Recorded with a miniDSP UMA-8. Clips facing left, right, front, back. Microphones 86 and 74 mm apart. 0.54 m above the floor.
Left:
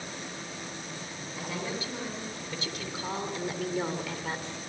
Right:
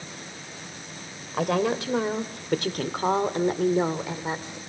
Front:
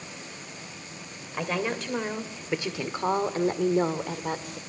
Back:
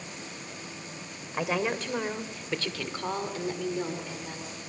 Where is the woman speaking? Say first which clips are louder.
Right 12 dB, even; 100° right, 2.5 m; by 4.6 s 15° right, 1.9 m.